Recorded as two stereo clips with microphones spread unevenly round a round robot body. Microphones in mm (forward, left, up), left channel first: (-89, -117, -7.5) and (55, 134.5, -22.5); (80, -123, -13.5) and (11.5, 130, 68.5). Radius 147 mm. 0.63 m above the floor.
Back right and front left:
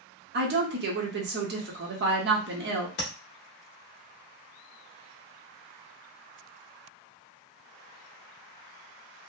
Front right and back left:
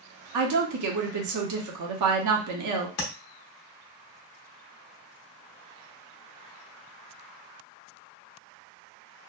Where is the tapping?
65° right, 0.9 m.